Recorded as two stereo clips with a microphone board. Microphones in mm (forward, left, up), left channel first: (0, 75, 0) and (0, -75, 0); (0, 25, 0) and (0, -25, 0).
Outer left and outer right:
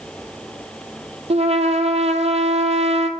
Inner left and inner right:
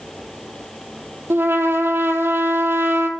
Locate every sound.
1.3 s a trumpet: 45° right (ahead or behind), 0.6 m